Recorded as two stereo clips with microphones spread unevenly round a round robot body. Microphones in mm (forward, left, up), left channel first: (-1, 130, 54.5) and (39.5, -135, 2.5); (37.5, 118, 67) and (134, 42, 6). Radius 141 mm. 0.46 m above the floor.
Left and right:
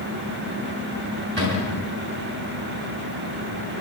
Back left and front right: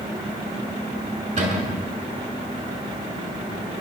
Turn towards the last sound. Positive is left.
turn(degrees=-30)